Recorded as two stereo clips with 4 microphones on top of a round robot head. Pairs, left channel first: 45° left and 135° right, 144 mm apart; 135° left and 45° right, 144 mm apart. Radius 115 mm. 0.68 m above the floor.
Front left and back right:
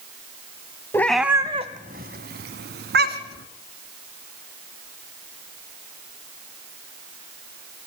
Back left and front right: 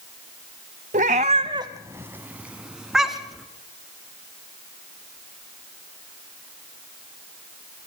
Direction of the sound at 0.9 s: 25° right.